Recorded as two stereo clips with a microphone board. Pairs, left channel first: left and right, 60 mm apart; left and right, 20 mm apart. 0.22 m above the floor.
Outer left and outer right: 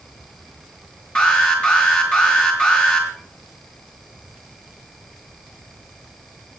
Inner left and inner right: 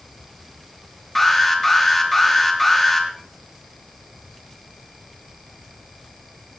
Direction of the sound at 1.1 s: 20° left (ahead or behind).